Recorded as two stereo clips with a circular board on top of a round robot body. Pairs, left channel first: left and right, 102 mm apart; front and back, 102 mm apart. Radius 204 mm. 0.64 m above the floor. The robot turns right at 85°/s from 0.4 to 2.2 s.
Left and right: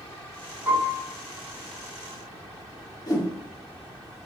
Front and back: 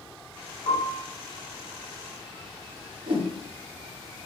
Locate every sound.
0.7 s a piano: 20° right, 2 m; by 1.0 s 10° left, 2 m
3.1 s a whoosh: 145° left, 1.3 m